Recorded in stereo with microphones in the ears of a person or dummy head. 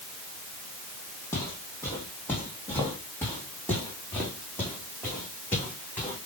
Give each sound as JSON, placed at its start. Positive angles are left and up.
{"t": 1.3, "sound": "footsteps", "side_deg": 20, "distance_m": 4.5}